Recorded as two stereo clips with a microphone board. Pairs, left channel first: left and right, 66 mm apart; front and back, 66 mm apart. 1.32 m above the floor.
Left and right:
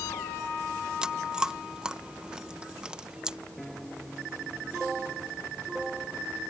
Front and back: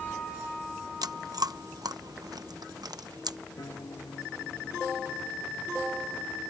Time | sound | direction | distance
1.0 | chewing | 165° right | ?
3.6 | a piano | 5° left | ?